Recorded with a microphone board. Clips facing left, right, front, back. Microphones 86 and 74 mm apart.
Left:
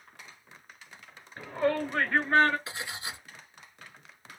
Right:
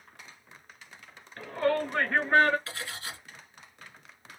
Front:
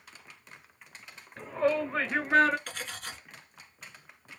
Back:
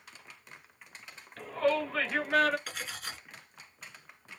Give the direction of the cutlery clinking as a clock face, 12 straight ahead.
9 o'clock.